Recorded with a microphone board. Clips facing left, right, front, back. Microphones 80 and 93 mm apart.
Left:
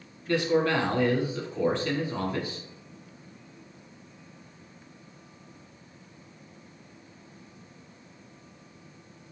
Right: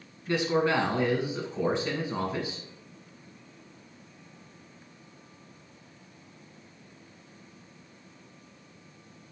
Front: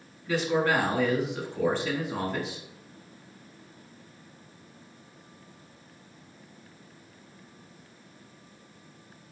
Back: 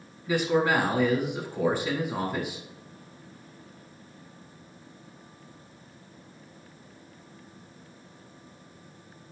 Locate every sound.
0.3 s a man speaking: 120° right, 1.0 m